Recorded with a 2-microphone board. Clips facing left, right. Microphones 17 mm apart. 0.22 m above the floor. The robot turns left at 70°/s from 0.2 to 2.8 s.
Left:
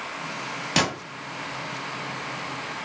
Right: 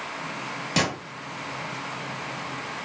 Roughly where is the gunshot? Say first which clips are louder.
Left 1 dB; left.